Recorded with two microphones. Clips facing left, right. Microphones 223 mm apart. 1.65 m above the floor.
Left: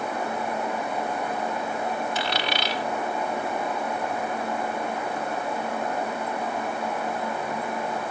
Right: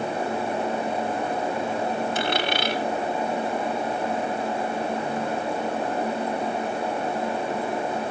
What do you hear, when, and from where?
2.1 s a dropped coin: 50° right (ahead or behind), 2.5 m